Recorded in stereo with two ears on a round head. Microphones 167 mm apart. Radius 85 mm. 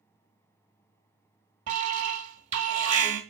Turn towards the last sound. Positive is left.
turn(degrees=-40)  # may be behind; listen again after turning